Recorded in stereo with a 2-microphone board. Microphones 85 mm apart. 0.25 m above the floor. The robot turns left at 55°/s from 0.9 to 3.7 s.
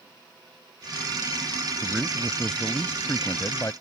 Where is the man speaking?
155° right; by 3.7 s 100° left.